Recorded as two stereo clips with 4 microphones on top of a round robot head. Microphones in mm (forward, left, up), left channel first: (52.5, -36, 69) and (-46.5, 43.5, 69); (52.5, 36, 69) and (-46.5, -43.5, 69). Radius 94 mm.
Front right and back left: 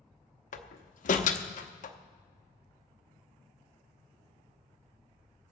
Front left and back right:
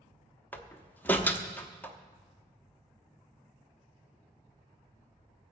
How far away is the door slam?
About 0.8 m.